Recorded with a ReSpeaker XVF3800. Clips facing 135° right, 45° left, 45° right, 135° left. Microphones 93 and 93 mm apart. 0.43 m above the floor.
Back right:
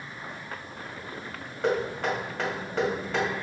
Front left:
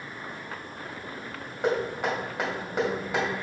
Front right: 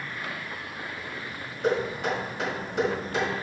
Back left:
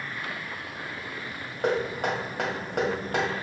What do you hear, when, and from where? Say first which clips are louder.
1.6 s knocking: even, even; 120° left, 2 m